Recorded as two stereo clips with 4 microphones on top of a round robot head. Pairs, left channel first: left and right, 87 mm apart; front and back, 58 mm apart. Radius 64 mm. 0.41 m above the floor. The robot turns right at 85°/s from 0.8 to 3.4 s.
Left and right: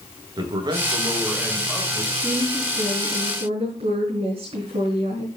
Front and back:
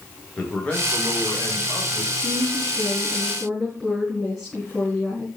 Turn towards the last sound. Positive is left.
turn(degrees=-90)